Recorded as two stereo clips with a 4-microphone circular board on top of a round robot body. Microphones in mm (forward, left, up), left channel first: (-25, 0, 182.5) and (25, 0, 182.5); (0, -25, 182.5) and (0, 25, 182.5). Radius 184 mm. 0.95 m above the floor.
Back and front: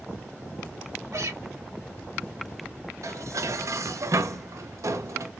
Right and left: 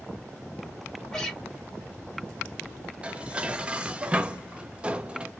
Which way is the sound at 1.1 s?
10° right.